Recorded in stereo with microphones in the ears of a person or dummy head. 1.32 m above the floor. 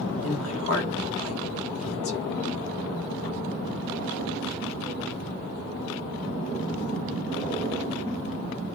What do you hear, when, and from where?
0.2 s a woman speaking: 85° left, 1.7 m